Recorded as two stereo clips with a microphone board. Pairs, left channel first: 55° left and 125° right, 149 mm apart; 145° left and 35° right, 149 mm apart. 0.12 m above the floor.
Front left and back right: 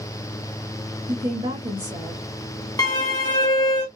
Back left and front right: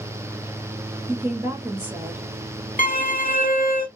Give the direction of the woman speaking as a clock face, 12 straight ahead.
3 o'clock.